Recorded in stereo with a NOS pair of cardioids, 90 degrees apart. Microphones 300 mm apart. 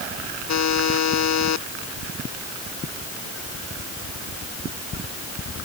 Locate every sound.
0.5 s a buzzer: 55° left